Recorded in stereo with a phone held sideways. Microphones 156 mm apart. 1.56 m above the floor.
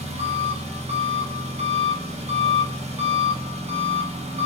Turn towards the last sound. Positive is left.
turn(degrees=-45)  # may be behind; listen again after turning